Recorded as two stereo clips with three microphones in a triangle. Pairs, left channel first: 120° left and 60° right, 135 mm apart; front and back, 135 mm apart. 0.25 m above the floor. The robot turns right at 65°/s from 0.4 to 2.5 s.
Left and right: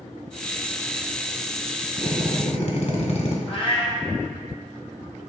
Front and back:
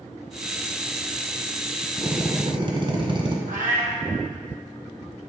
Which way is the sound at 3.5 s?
165° left.